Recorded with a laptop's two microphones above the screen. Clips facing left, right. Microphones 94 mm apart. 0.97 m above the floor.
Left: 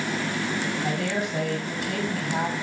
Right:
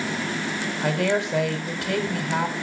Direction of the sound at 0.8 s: 75° right (ahead or behind).